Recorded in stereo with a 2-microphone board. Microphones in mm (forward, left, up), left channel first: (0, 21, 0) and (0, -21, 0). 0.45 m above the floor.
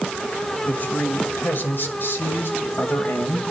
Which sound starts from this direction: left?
A man speaking, at 0.7 s.